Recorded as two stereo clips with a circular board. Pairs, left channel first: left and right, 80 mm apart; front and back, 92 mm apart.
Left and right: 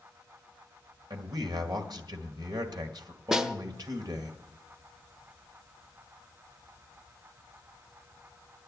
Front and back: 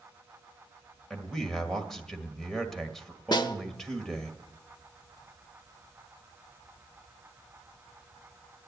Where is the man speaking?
85° right, 1.7 m.